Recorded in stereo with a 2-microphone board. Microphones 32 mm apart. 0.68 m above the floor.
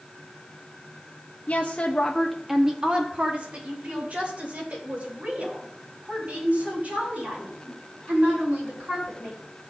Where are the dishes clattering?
No dishes clattering in this recording.